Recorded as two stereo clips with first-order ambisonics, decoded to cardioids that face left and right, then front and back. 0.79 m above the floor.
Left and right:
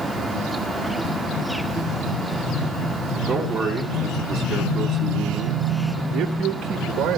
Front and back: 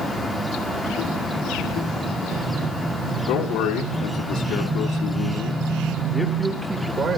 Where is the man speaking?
5° right, 2 m; by 7.2 s 130° right, 1.1 m.